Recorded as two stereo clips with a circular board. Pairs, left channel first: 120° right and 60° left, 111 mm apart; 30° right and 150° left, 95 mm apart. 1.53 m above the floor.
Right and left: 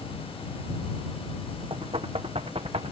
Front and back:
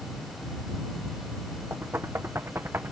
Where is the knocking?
85° left.